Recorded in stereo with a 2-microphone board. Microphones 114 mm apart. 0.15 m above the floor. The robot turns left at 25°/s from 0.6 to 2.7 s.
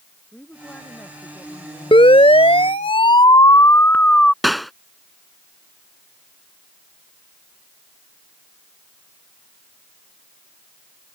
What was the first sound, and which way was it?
A woman speaking, 165° left.